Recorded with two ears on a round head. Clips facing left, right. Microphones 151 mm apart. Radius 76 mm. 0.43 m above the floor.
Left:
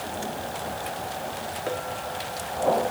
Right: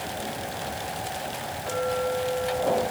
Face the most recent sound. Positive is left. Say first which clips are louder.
# right 7 dB
turn(degrees=40)  # may be behind; listen again after turning